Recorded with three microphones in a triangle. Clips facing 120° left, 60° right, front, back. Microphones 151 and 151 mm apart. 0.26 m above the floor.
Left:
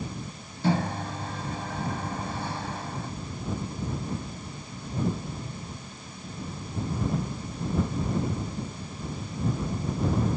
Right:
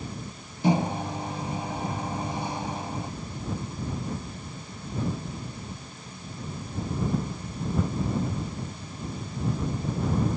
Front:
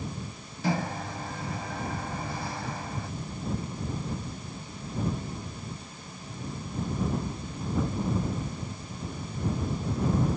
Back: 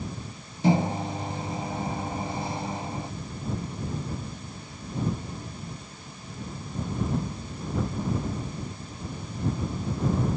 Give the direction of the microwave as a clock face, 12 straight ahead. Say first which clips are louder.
Right 2 dB, back 6 dB; 4 o'clock.